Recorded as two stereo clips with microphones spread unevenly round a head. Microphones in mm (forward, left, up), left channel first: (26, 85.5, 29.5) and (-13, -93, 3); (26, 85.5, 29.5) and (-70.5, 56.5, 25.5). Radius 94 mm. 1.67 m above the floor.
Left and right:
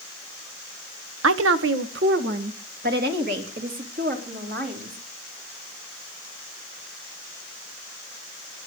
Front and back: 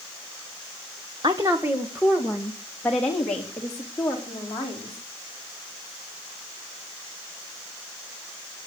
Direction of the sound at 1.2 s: 95° right.